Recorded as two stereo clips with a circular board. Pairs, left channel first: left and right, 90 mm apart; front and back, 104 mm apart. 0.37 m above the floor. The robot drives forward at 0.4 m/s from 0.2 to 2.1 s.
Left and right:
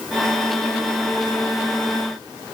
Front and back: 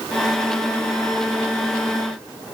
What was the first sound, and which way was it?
Only background noise.